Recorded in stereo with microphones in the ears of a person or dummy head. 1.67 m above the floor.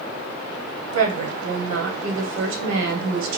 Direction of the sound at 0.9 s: 70° right (ahead or behind).